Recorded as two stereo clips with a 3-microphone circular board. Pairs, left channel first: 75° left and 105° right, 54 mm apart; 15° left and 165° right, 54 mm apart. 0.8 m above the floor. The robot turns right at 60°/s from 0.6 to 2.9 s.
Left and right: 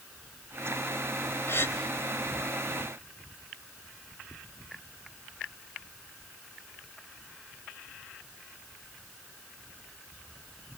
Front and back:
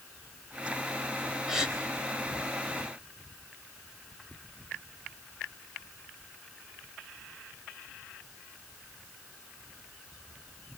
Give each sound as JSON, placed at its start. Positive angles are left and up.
{"t": 1.5, "sound": "a gasp", "azimuth_deg": 110, "distance_m": 3.5}